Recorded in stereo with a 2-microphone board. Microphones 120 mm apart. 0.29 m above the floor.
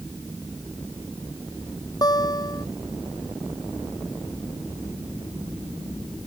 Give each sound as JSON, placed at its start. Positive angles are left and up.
{"t": 2.0, "sound": "a guitar", "side_deg": 35}